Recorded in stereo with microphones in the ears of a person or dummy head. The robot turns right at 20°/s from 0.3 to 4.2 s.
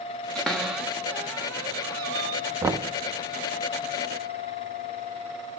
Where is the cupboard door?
Centre (ahead or behind), 0.8 m; by 2.4 s 25° right (ahead or behind), 0.8 m.